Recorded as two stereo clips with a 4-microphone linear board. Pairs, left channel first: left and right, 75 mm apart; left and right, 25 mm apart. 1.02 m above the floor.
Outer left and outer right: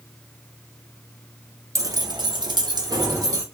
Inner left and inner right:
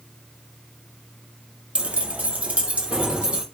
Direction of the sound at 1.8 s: 50° right (ahead or behind).